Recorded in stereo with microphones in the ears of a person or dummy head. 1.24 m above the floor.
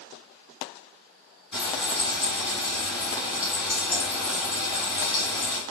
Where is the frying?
5° left (ahead or behind), 1.7 m.